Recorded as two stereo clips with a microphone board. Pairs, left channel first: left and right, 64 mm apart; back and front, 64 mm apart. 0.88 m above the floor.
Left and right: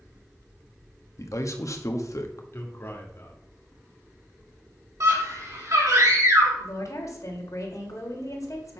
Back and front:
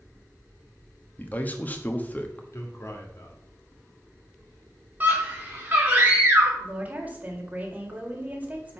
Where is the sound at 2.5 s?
140° left, 2 m.